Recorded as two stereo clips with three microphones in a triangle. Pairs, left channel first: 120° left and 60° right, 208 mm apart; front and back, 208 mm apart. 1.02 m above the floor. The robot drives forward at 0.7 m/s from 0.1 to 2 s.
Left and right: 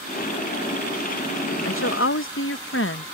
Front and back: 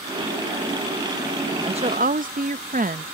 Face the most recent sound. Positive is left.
turn(degrees=135)